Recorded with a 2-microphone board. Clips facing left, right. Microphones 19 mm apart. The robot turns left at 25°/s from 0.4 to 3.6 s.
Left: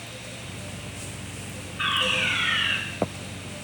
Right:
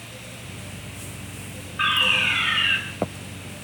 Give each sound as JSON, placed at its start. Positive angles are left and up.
{"t": 1.8, "sound": "a fire alarm", "side_deg": -40, "distance_m": 9.0}